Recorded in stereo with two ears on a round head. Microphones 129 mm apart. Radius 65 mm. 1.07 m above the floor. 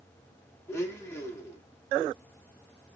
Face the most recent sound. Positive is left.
turn(degrees=15)  # may be behind; listen again after turning